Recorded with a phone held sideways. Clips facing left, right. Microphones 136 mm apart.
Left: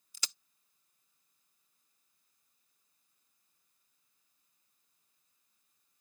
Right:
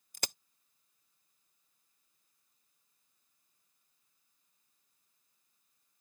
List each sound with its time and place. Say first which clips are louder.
0.1 s a crack: right 7 dB; 55° right (ahead or behind)